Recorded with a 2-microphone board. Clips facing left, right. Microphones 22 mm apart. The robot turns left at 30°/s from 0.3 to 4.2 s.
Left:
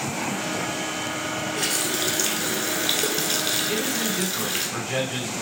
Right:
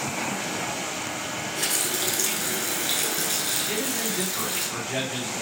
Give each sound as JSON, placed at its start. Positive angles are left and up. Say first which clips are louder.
{"t": 1.6, "sound": "a running tap", "louder": "left 1 dB", "azimuth_deg": 165, "distance_m": 0.9}
{"t": 3.7, "sound": "a man speaking", "louder": "left 3 dB", "side_deg": 15, "distance_m": 2.5}